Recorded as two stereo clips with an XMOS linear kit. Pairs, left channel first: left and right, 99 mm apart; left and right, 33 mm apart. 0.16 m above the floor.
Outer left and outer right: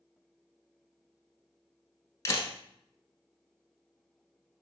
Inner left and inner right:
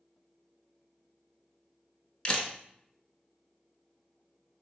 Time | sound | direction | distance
2.2 | a camera shutter | 35° left (ahead or behind) | 0.9 m